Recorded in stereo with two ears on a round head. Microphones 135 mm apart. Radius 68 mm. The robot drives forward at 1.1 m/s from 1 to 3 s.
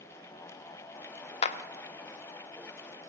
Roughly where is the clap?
Left.